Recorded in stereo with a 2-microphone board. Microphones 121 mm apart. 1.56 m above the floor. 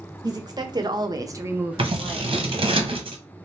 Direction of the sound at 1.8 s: 45° right (ahead or behind).